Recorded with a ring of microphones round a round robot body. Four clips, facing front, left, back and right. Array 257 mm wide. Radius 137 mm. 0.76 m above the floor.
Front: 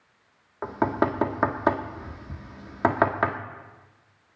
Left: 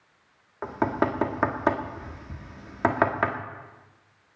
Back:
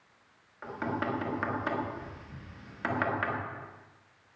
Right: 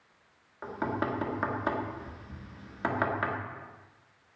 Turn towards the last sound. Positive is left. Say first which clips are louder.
# left 7 dB, front 9 dB
turn(degrees=35)